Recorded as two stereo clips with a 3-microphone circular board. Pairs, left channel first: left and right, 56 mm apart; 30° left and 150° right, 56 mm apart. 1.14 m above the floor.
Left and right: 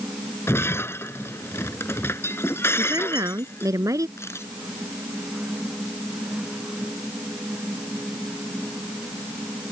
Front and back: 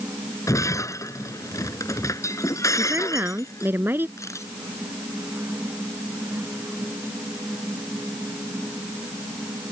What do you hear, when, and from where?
0.5 s breaking glass: 50° left
2.8 s a woman speaking: 100° right
4.2 s a camera shutter: 55° left